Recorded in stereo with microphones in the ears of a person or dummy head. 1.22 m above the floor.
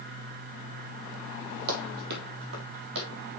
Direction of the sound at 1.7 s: 50° right (ahead or behind).